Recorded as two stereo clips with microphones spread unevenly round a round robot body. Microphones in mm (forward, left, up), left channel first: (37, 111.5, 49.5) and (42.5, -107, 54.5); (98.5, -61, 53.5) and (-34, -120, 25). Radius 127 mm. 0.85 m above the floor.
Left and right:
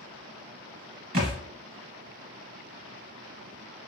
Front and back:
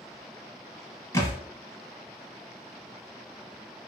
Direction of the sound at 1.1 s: 30° right.